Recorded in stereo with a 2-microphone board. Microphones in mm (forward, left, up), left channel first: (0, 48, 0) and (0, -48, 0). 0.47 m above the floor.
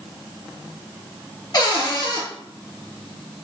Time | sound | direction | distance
1.5 | a cupboard door | 45° left (ahead or behind) | 1.0 m